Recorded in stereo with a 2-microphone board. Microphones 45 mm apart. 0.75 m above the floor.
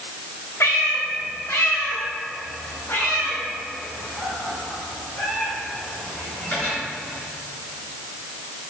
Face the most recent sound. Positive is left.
turn(degrees=35)  # may be behind; listen again after turning